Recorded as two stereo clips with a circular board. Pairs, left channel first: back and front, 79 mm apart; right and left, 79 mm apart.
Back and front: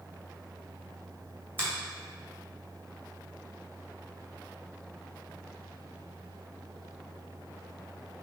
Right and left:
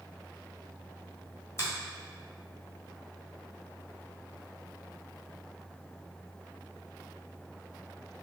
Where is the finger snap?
50° right, 1.7 m.